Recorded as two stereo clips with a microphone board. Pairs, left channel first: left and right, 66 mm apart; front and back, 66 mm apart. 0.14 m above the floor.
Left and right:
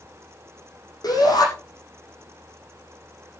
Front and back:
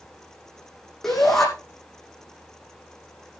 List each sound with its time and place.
1.0 s a shout: 85° left, 7 m